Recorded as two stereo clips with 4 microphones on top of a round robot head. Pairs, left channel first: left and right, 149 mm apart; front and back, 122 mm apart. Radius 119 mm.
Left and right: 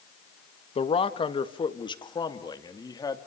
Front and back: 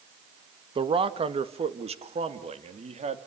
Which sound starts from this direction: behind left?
A man speaking, at 0.8 s.